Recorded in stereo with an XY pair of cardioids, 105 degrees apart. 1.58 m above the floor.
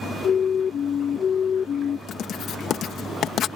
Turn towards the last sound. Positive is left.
turn(degrees=65)